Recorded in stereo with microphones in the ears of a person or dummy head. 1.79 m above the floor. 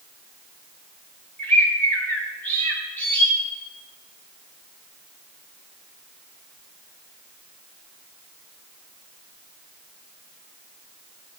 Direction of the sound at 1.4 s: 10° left (ahead or behind).